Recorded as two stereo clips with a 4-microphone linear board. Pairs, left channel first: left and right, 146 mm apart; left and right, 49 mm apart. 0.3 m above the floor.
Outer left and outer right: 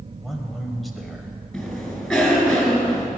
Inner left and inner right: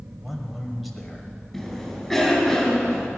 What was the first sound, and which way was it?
A man speaking, centre (ahead or behind).